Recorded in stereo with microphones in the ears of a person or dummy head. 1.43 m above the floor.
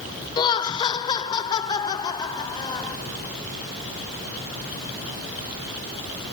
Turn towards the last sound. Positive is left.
turn(degrees=25)  # may be behind; listen again after turning